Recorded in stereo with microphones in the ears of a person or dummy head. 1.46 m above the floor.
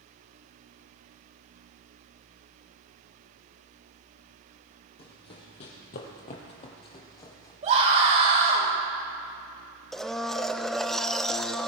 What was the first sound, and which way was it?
Running footsteps, 30° left (ahead or behind).